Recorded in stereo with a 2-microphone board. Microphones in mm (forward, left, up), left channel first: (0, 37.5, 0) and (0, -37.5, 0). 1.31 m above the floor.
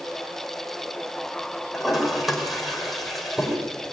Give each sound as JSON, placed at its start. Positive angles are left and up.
{"t": 1.7, "sound": "a toilet flushing", "side_deg": 0, "distance_m": 5.0}